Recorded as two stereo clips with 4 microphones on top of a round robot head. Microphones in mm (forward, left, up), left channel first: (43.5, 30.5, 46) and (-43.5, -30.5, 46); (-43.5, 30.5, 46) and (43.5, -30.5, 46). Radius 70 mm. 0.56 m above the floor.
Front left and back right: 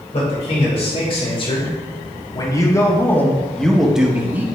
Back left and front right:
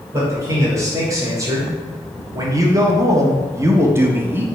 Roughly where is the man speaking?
Ahead left.